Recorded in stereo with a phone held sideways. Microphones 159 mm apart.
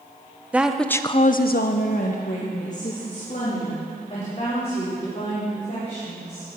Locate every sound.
0.5 s a woman speaking: 10° right (ahead or behind), 1.1 m; by 6.5 s 40° left (ahead or behind), 7 m